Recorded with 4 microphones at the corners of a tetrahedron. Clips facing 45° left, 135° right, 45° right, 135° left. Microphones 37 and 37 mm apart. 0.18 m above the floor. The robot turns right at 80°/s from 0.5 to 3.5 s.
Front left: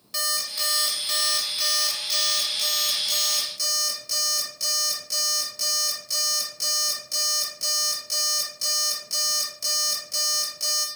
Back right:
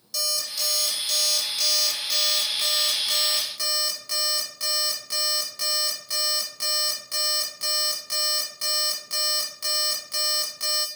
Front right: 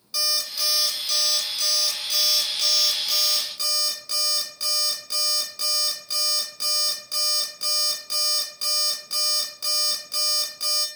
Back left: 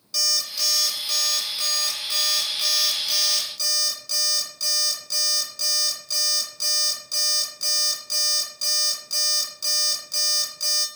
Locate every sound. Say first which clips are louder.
0.1 s an alarm clock: front left 1 dB, back left 1 dB; 20° left, 1.0 m; by 10.9 s 100° right, 1.0 m